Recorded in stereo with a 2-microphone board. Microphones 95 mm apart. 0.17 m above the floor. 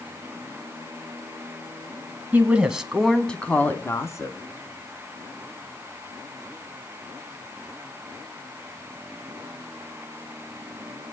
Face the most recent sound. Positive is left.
turn(degrees=35)  # may be behind; listen again after turning